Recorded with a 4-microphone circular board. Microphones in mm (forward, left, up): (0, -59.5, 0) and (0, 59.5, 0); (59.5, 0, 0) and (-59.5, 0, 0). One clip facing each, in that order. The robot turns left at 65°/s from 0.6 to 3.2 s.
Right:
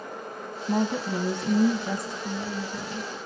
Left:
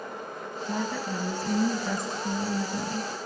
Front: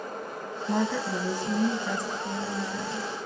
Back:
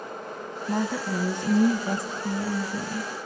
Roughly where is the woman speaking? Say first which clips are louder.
Right 5 dB, even; right.